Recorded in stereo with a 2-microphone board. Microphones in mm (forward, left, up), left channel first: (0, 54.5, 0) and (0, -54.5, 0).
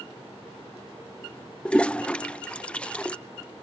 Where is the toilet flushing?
10° left (ahead or behind).